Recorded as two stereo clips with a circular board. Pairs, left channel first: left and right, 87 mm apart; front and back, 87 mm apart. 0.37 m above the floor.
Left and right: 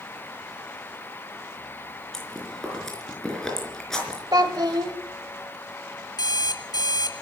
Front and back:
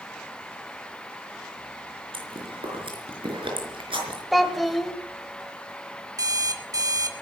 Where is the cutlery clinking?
I don't hear cutlery clinking.